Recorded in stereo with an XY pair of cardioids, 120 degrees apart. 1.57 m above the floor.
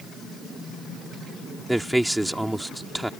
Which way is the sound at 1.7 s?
5° right.